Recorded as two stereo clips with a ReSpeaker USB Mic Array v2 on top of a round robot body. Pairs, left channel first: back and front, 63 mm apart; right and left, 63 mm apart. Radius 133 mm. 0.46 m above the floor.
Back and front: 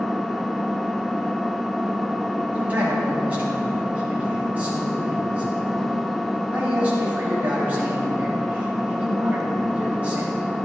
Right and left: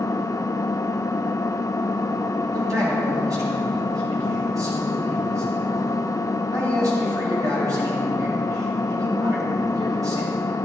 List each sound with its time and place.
0.0 s an engine running: 95° right, 0.9 m
2.5 s a man speaking: 65° left, 4 m